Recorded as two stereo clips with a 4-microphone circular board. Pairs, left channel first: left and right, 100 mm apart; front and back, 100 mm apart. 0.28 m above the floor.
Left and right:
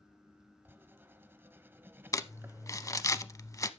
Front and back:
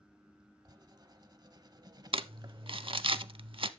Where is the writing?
150° right, 0.7 m.